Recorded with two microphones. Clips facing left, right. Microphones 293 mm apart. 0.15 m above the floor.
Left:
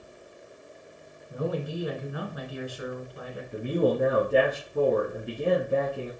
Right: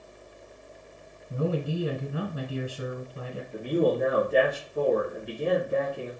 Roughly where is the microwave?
I don't hear a microwave.